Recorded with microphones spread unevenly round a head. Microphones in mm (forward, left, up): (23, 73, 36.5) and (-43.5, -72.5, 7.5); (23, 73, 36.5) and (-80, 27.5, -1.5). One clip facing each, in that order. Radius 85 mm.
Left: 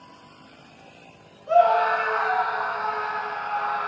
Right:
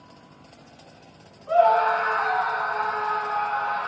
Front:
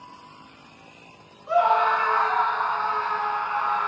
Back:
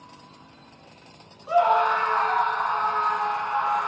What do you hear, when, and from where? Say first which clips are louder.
1.5 s a scream: even, even; 125° left, 1.4 m; by 3.9 s 130° left, 3 m